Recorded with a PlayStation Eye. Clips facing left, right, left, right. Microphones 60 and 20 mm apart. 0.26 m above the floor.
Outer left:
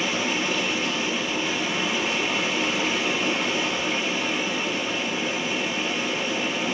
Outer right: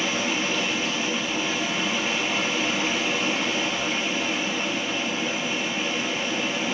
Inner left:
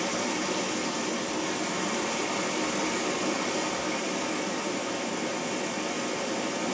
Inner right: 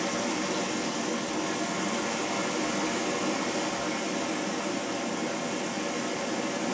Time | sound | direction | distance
0.0 | running water | centre (ahead or behind) | 0.8 m